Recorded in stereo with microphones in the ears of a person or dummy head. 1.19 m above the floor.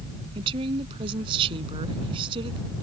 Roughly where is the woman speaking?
Right.